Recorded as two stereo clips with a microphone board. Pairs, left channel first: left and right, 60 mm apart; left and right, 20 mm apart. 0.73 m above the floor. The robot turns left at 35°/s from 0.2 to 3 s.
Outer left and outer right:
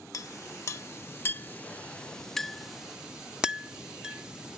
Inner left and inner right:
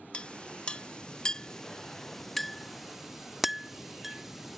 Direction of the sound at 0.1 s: 65° left (ahead or behind).